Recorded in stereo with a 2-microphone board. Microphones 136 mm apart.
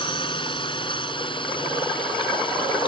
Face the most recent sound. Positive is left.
turn(degrees=40)  # may be behind; listen again after turning